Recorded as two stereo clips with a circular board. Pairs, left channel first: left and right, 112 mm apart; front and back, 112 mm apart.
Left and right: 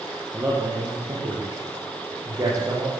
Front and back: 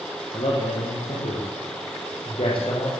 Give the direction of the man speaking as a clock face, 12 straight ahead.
1 o'clock.